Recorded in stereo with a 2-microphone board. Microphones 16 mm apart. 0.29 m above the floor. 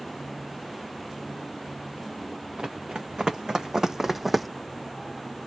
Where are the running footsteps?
65° right (ahead or behind), 1.1 m; by 4.5 s centre (ahead or behind), 0.5 m.